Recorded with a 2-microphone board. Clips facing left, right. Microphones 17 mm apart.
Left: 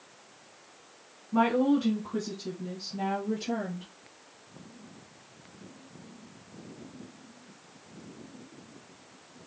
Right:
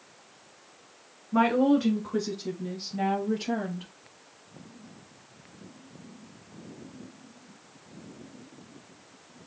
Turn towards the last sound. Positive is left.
turn(degrees=-40)  # may be behind; listen again after turning